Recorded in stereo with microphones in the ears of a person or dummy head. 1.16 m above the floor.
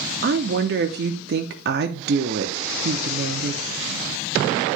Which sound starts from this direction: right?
A woman speaking, at 0.2 s.